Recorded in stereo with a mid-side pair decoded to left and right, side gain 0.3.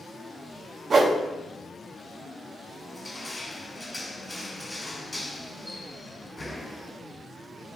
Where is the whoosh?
65° right, 0.6 m.